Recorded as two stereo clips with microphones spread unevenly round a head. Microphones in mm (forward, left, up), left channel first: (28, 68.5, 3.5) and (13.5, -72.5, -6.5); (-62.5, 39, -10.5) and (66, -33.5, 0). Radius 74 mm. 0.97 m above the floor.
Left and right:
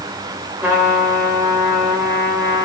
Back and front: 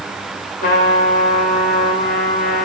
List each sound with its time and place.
0.6 s a trumpet: 175° right, 3 m